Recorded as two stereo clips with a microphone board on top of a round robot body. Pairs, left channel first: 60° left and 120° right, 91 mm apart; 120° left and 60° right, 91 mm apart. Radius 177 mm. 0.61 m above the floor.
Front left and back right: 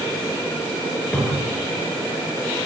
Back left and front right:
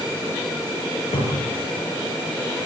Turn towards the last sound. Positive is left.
turn(degrees=130)